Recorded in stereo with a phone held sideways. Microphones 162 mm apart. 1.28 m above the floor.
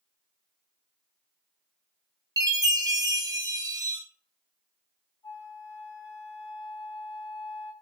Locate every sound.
2.4 s a chime: 25° right (ahead or behind), 0.6 m
5.2 s a flute: 25° left (ahead or behind), 0.6 m